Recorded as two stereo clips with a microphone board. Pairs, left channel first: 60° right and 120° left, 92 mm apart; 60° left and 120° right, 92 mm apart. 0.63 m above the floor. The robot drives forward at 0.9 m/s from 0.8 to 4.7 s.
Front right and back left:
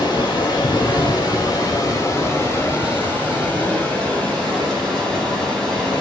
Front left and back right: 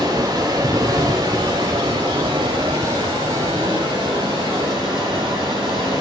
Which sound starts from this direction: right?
Running water, at 0.0 s.